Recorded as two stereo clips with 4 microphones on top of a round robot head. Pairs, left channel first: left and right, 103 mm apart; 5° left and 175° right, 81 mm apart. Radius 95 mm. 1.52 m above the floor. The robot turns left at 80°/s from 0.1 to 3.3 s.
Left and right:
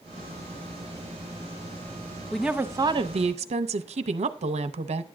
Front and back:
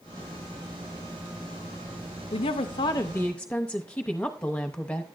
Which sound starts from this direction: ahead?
A woman speaking, at 2.3 s.